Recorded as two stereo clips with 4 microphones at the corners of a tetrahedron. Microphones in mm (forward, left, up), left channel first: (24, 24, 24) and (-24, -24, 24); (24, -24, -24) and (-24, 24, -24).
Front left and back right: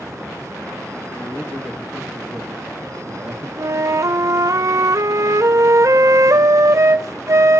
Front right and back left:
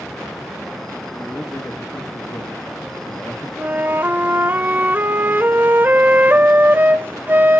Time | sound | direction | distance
1.1 | a man speaking | 10° right | 1.8 m
3.6 | a flute | 170° right | 0.5 m